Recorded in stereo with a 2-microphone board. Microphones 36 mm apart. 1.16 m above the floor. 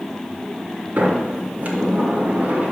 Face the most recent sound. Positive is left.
turn(degrees=-50)  # may be behind; listen again after turning